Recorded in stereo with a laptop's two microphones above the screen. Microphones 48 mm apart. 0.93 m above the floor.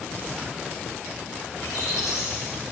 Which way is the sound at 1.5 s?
75° left (ahead or behind).